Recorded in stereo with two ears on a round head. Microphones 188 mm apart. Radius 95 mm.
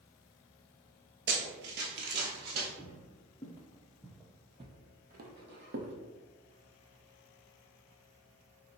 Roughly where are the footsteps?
Left.